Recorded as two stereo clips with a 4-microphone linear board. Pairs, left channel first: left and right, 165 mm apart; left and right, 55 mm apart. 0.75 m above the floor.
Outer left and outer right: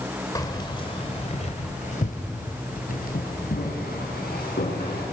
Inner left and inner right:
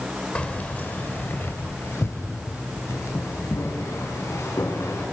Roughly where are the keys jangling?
Left.